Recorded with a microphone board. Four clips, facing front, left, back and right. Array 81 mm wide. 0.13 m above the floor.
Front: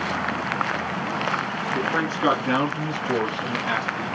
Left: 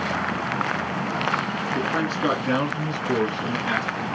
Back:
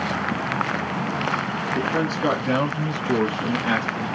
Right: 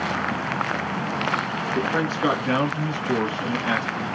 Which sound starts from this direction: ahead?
A man speaking, at 1.8 s.